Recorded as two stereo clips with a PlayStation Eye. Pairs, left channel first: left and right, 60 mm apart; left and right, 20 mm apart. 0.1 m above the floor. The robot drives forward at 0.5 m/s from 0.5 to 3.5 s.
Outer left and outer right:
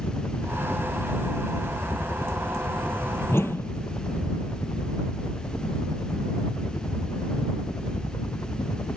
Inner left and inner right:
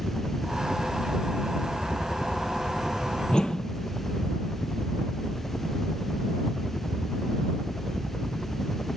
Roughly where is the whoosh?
Left.